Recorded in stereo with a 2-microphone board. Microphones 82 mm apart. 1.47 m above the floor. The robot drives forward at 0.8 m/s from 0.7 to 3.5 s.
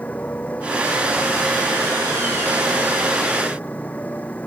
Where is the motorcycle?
20° left (ahead or behind).